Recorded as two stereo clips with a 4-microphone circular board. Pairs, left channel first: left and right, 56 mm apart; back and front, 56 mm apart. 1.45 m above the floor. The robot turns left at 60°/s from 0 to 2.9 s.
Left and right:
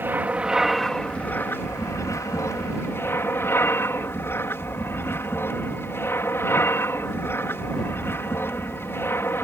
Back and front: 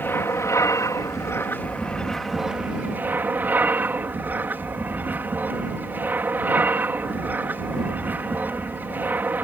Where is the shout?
No shout in this recording.